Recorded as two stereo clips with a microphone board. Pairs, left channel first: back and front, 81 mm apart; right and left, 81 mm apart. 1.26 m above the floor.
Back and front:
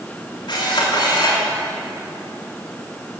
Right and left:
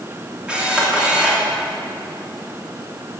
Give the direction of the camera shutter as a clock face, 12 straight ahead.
6 o'clock.